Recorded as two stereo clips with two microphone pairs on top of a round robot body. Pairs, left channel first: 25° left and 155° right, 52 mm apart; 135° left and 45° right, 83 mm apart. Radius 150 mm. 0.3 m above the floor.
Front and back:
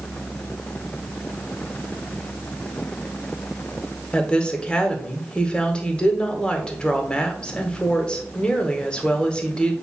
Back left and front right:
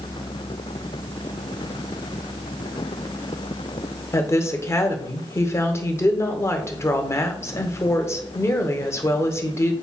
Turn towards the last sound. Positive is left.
turn(degrees=95)